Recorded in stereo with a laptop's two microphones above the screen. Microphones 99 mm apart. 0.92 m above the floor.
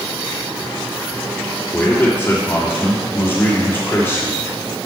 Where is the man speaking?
20° left (ahead or behind), 3 m.